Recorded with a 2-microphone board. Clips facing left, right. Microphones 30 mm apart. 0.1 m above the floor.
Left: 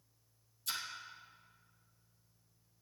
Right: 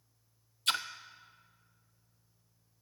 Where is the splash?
70° right (ahead or behind), 0.5 m.